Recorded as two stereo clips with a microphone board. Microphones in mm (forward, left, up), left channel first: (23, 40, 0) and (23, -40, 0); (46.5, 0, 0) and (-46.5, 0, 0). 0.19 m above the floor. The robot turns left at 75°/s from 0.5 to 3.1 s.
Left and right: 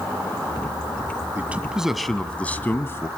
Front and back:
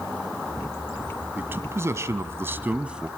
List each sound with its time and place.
1.4 s a man speaking: 130° right, 1.1 m; by 3.1 s 100° left, 1.1 m